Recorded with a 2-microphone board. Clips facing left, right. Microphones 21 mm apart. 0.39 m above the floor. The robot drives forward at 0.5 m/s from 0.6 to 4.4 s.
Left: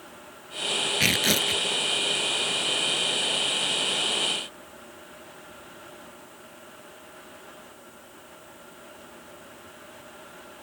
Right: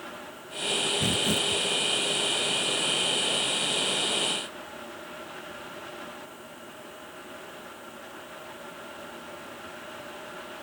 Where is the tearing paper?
75° left (ahead or behind).